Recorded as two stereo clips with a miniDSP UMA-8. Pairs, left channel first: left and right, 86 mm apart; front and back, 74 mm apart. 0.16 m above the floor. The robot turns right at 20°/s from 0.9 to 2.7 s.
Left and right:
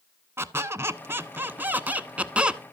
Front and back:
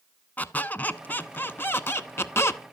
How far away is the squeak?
About 0.6 m.